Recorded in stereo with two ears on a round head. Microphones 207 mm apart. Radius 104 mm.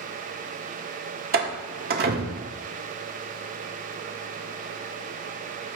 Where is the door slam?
40° right (ahead or behind), 1.8 m.